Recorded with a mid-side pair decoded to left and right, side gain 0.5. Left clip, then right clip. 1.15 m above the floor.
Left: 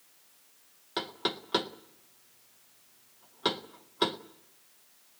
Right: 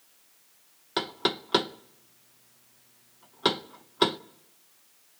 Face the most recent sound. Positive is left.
turn(degrees=-30)